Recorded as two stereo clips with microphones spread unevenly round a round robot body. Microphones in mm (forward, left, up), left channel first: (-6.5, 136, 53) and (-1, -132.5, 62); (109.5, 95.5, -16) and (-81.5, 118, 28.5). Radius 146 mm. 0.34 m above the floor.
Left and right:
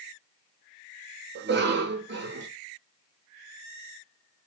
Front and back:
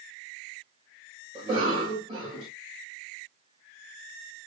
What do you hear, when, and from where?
1.4 s a cough: 115° right, 1.5 m